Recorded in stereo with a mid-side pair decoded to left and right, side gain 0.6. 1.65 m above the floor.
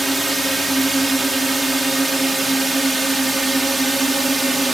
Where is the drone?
10° right; by 4.7 s 15° right.